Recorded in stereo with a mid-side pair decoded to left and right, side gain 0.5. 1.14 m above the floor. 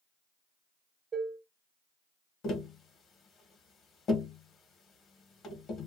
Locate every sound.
1.1 s dishes clattering: 35° right, 0.7 m
2.4 s tapping: 55° left, 1.3 m